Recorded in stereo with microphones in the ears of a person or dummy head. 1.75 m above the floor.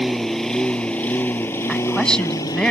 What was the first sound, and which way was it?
A lawn mower, centre (ahead or behind).